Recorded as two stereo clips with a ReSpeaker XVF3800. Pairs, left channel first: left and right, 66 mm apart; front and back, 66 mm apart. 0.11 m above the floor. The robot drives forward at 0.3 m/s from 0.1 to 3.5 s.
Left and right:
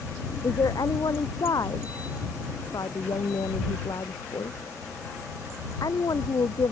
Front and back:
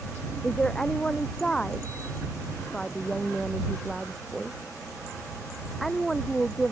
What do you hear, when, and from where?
0.4 s a woman speaking: 75° left; by 6.7 s 85° left